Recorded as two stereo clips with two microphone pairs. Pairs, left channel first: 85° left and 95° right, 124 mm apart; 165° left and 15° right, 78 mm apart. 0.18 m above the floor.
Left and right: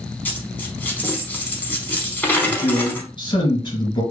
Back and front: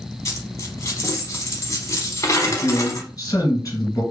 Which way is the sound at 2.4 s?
130° left.